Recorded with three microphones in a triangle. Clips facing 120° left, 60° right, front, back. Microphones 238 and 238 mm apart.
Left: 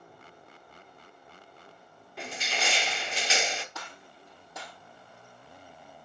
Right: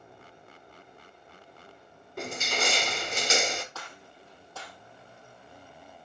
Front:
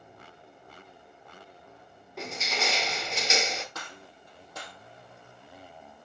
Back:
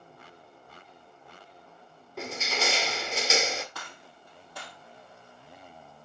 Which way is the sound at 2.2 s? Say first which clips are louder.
Right 4 dB, back 1 dB; 90° right.